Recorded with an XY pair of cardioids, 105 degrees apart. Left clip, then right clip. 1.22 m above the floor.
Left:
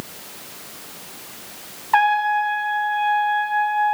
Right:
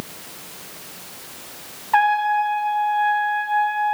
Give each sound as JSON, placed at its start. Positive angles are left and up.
{"t": 1.9, "sound": "a trumpet", "azimuth_deg": 20, "distance_m": 0.8}